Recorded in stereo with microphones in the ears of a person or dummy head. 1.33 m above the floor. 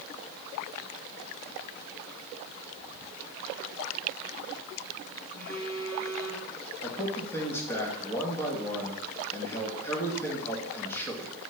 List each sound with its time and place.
5.3 s a phone buzzing: 45° left (ahead or behind), 3 m
6.8 s a man speaking: 15° left (ahead or behind), 2.5 m